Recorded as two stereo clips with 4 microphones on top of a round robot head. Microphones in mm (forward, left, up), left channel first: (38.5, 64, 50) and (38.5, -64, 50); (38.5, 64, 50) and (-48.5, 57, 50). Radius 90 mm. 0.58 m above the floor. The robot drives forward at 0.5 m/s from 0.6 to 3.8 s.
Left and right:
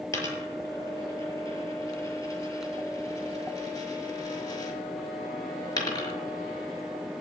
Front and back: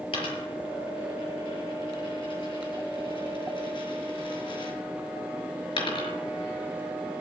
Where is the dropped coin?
25° left, 6 m; by 6.2 s 30° left, 5 m.